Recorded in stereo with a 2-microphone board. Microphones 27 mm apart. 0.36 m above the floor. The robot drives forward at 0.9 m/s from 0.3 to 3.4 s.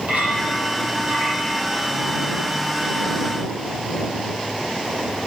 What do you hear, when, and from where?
0.1 s a clink: 70° right (ahead or behind), 7.5 m; by 1.6 s 65° right (ahead or behind), 8 m